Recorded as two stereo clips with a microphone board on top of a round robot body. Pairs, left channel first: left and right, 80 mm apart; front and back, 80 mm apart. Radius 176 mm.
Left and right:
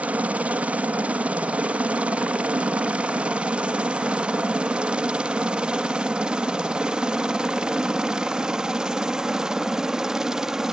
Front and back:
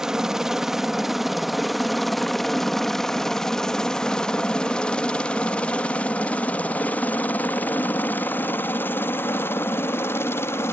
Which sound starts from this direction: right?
A helicopter, at 0.0 s.